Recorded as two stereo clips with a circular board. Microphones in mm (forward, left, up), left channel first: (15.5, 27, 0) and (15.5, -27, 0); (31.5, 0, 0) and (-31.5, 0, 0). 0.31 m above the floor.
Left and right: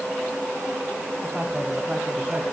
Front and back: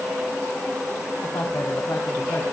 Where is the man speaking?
10° right, 2.5 m; by 2.4 s 35° right, 3 m.